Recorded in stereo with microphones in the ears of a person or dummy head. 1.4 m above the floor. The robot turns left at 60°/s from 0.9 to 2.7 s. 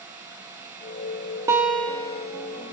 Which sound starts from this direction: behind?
A guitar, at 1.5 s.